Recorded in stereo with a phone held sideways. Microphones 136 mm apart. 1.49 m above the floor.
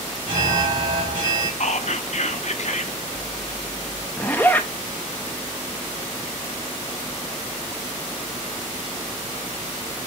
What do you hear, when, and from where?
0.3 s an alarm: 85° right, 3 m
1.6 s whispering: 55° left (ahead or behind), 0.7 m
4.2 s a zipper: 15° left (ahead or behind), 0.8 m